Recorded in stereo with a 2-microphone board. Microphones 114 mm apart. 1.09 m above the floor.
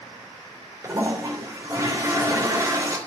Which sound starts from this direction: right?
A toilet flushing, at 0.8 s.